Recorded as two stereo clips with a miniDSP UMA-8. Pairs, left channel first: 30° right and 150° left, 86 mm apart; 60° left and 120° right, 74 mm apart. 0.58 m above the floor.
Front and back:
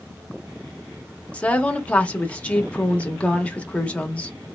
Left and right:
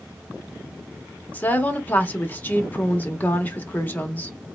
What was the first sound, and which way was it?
A woman speaking, 30° left.